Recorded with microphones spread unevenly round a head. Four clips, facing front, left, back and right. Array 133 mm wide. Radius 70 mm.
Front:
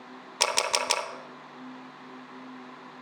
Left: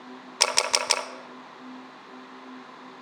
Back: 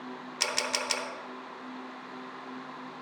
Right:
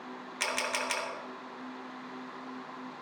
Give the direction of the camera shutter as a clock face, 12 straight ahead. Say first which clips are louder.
Left 6 dB, front 6 dB; 10 o'clock.